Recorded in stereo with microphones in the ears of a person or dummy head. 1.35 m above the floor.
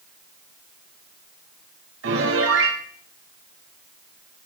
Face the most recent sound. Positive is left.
turn(degrees=-70)  # may be behind; listen again after turning